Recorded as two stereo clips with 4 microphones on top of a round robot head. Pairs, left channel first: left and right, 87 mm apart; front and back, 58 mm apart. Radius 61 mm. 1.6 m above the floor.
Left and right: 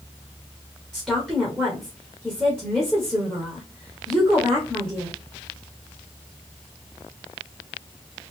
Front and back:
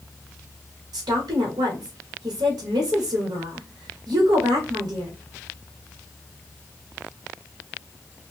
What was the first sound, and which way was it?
A woman speaking, 170° right.